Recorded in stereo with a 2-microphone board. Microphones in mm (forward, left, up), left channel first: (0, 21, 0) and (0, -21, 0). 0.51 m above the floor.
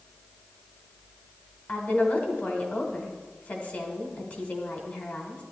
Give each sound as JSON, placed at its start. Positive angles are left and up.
{"t": 1.7, "sound": "a woman speaking", "side_deg": 45, "distance_m": 2.0}